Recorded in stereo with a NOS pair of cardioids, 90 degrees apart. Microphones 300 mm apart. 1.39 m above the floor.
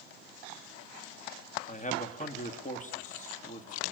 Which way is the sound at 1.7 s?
25° left.